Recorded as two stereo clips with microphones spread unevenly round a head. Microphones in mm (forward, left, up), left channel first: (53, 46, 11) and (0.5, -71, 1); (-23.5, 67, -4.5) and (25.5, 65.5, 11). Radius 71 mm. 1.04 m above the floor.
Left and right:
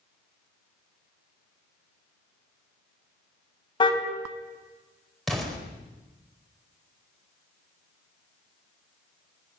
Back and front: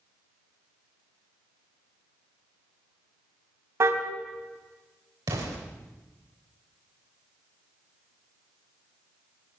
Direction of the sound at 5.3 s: 20° right.